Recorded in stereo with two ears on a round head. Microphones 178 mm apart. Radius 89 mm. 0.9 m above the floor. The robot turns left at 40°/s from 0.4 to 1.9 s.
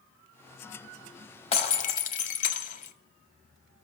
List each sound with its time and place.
1.5 s breaking glass: 30° left (ahead or behind), 1.0 m; by 2.9 s 40° left (ahead or behind), 1.0 m